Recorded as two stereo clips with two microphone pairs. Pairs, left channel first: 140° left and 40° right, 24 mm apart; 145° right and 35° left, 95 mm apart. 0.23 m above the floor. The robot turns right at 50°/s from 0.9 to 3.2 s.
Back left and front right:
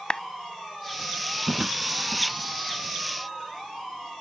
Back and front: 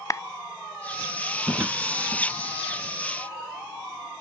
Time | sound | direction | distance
0.1 | a clap | 175° left | ?
1.5 | a drawer | 40° right | ?